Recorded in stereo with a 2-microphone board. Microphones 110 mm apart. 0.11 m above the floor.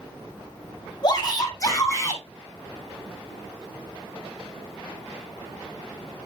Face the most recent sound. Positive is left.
turn(degrees=25)  # may be behind; listen again after turning